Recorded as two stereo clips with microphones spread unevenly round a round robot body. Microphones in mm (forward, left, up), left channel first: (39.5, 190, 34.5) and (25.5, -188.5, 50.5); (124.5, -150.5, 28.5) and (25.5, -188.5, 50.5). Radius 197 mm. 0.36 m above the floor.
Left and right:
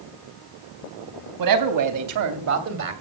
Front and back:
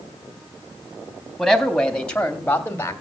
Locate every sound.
1.4 s a man speaking: 65° right, 3.5 m; by 3.0 s 35° right, 2.5 m